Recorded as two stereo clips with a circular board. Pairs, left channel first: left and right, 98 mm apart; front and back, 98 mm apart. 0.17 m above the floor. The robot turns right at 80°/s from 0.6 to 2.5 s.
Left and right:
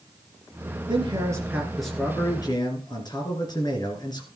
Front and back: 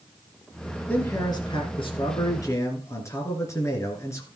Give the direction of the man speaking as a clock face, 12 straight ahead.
2 o'clock.